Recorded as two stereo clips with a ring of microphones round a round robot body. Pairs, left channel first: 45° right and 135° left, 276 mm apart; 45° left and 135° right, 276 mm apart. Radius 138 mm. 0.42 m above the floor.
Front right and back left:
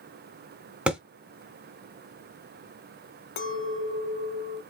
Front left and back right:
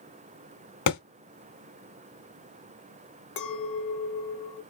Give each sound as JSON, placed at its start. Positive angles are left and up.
{"t": 0.9, "sound": "a thud", "azimuth_deg": 50, "distance_m": 1.8}
{"t": 3.4, "sound": "a clink", "azimuth_deg": 0, "distance_m": 1.1}